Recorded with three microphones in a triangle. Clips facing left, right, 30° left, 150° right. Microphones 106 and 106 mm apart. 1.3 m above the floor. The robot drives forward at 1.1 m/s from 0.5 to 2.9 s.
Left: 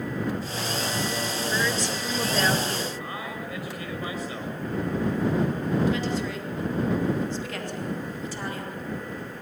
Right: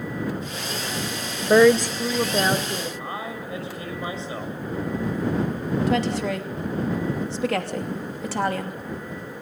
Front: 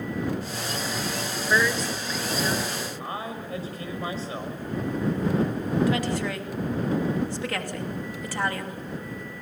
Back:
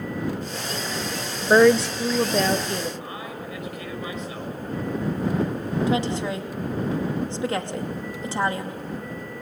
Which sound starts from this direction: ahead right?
A man speaking, at 3.0 s.